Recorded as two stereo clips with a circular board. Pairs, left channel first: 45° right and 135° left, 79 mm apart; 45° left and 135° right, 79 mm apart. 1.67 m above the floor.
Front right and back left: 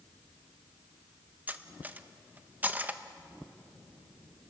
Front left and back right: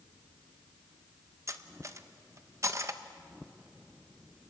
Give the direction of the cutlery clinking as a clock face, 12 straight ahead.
5 o'clock.